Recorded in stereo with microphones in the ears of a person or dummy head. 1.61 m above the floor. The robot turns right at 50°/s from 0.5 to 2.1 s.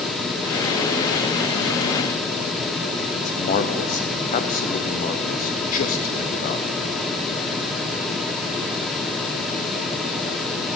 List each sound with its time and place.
3.2 s a man speaking: 40° left (ahead or behind), 0.7 m